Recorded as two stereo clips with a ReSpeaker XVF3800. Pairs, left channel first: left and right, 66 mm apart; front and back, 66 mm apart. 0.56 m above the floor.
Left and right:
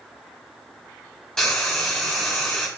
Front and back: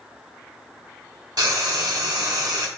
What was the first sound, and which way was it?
Frying, 170° left.